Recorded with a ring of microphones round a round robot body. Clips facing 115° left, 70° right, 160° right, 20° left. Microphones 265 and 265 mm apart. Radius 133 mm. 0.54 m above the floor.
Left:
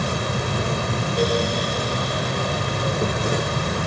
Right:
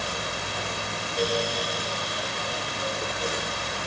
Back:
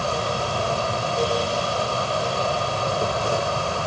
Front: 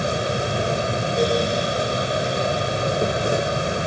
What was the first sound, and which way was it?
An insect, 90° left.